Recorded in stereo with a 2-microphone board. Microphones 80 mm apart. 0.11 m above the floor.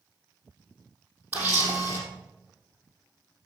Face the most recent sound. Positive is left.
turn(degrees=-25)  # may be behind; listen again after turning